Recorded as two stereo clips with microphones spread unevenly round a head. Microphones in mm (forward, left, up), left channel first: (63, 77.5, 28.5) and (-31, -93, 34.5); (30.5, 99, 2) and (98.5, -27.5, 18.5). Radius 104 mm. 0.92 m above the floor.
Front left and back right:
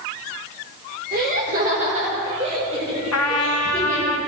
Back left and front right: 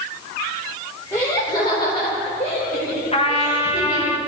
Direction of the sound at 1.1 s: 165° right.